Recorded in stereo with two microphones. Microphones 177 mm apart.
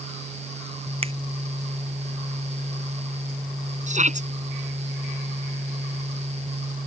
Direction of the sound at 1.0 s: 35° right (ahead or behind).